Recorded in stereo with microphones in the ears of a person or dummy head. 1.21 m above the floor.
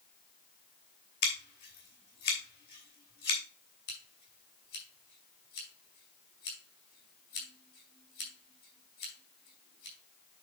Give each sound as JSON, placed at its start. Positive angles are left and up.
{"t": 1.2, "sound": "scissors", "side_deg": 55, "distance_m": 3.0}
{"t": 3.9, "sound": "scissors", "side_deg": 65, "distance_m": 4.0}